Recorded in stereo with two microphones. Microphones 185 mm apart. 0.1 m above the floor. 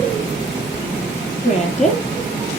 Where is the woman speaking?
40° left (ahead or behind), 3 m.